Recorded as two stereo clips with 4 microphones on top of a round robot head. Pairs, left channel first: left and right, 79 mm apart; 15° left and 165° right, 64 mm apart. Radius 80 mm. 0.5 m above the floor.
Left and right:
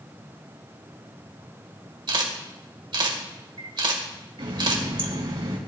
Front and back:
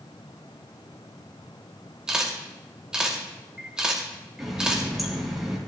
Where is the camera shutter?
85° right, 2.5 m.